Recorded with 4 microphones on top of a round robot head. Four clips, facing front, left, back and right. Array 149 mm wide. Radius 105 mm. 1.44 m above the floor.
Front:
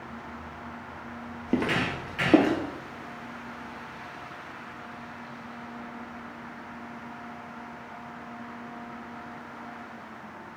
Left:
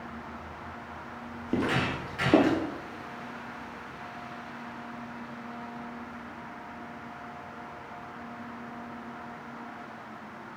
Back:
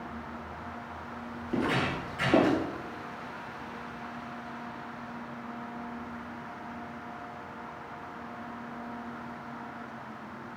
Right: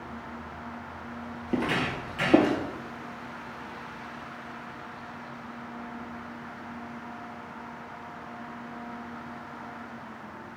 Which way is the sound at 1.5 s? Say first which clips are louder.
Even, front 2 dB; 10° left.